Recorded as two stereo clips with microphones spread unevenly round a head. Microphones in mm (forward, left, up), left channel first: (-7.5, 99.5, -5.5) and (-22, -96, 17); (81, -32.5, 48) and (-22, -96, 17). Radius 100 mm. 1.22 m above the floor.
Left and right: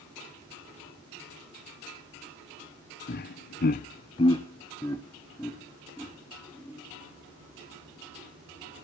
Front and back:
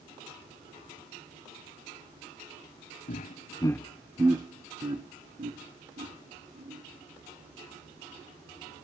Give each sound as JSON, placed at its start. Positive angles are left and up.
{"t": 3.1, "sound": "laughter", "azimuth_deg": 55, "distance_m": 0.7}